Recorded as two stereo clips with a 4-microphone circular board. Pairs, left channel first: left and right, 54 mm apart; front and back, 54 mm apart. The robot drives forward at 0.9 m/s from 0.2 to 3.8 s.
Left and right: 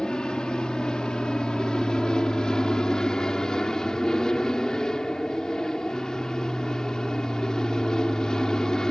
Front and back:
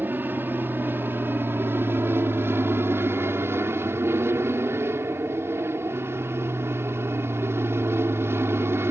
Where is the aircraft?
155° left; by 8.9 s 165° left.